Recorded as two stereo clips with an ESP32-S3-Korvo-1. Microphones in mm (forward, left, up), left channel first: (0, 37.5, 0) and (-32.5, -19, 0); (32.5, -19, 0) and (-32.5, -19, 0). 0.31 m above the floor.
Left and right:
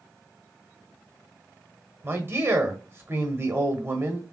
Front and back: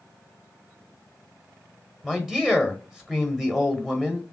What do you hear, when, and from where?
2.0 s a man speaking: 100° right, 1.2 m